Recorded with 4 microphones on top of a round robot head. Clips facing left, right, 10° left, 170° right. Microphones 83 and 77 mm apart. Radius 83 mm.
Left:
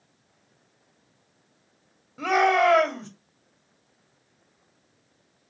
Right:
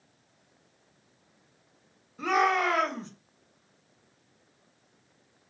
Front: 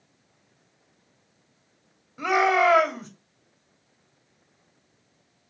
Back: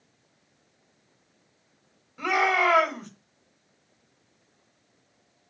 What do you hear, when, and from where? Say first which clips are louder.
2.2 s a shout: left 5 dB, front 3 dB; 90° left, 2.5 m